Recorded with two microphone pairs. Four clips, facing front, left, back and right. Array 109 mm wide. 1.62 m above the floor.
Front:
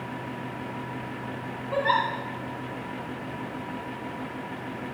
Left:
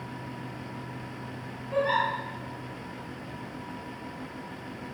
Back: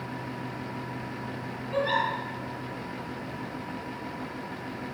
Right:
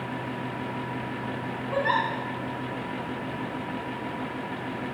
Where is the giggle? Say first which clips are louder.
Even, front 3 dB; 20° right, 2 m.